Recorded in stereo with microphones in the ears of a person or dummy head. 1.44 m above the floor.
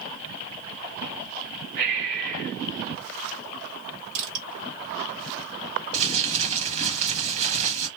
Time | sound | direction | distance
1.8 | breathing | 65° right (ahead or behind) | 1.1 m
4.2 | crushing | 80° right | 1.7 m
5.9 | crumpling | 35° right (ahead or behind) | 1.4 m